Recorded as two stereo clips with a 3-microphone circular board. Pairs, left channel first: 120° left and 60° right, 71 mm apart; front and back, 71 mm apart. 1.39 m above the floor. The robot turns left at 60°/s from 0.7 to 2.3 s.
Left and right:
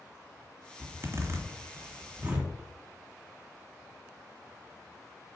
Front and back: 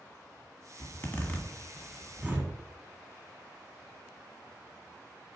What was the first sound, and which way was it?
A zipper, 35° right.